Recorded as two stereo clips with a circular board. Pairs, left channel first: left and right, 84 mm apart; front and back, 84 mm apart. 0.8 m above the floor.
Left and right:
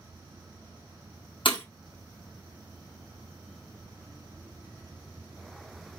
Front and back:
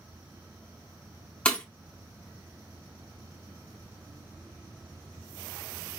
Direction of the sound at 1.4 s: 80° left.